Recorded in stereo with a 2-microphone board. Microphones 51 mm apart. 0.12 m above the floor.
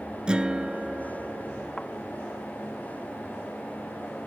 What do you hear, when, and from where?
0.3 s a guitar: 20° right (ahead or behind)
1.8 s a thud: 15° left (ahead or behind)